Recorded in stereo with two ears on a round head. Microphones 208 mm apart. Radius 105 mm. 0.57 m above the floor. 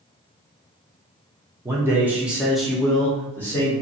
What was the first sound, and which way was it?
A man speaking, 10° right (ahead or behind).